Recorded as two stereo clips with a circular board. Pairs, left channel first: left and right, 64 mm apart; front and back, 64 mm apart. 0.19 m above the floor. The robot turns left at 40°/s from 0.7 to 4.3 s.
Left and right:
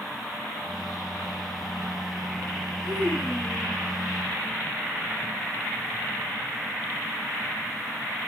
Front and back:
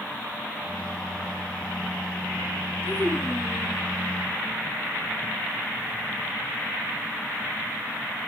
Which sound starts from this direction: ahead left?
A child speaking, at 2.8 s.